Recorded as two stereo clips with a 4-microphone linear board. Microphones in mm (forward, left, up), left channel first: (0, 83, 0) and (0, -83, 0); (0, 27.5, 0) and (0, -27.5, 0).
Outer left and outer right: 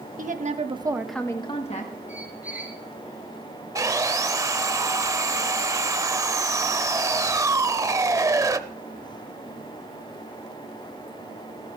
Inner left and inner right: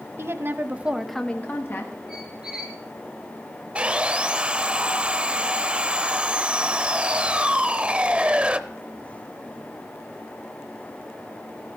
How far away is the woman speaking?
About 1.3 m.